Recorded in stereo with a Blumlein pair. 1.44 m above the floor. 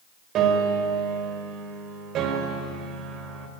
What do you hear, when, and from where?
0.3 s a piano: 35° right, 3.5 m